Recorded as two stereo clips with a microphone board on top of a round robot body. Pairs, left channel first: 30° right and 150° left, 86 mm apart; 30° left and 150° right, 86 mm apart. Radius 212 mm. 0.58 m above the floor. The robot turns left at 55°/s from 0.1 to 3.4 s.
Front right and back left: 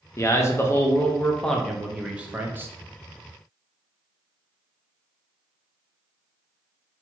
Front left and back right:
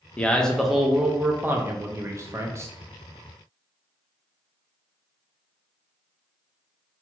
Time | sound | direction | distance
0.2 | a man speaking | 35° right | 0.8 m